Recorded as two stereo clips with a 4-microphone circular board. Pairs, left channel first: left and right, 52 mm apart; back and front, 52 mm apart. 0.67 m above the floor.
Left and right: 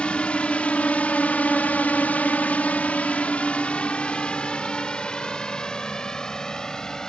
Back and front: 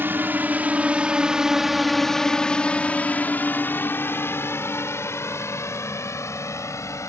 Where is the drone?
30° left; by 7.1 s 165° left.